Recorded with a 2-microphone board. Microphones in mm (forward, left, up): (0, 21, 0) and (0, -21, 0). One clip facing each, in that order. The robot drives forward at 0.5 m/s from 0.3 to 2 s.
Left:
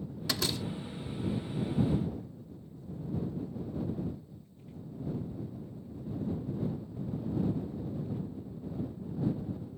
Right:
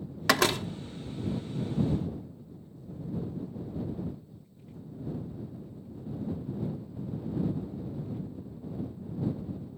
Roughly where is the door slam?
Right.